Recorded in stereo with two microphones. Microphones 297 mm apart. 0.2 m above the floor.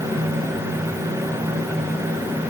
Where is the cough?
I don't hear a cough.